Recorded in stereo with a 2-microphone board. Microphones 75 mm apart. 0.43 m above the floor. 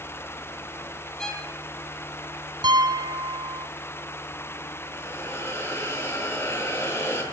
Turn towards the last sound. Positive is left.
turn(degrees=35)  # may be behind; listen again after turning